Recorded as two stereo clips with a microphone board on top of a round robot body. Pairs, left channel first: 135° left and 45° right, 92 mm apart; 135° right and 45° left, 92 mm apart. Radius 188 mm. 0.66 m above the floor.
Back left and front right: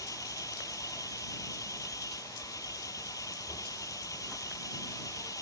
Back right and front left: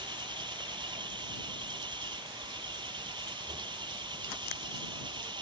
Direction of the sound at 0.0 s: 80° left.